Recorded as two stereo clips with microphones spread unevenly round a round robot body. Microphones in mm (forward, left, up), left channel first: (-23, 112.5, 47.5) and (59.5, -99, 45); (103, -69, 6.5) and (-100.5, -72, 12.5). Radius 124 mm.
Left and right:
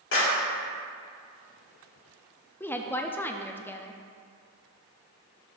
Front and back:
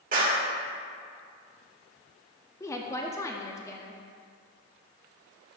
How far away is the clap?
About 1.9 m.